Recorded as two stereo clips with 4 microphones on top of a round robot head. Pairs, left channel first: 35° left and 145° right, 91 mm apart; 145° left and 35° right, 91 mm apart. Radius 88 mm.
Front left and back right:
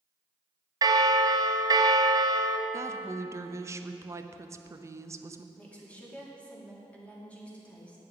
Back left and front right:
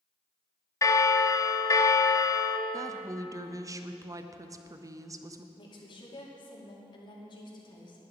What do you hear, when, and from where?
0.8 s a bell: 170° right, 0.8 m
2.7 s a woman speaking: 85° right, 0.7 m
5.5 s a woman speaking: 110° left, 2.5 m